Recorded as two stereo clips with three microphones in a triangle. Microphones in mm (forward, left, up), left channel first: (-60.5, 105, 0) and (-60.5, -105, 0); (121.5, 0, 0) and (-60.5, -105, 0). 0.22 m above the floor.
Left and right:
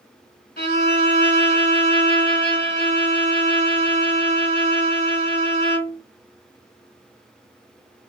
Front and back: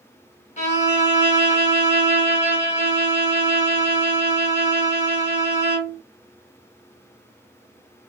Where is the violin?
75° left, 1.4 m.